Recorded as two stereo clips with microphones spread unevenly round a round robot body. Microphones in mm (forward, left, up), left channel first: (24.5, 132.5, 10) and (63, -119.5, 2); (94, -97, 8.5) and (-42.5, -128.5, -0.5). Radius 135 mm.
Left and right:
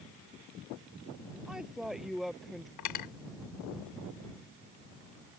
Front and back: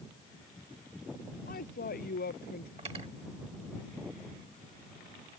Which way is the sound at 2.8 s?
125° left.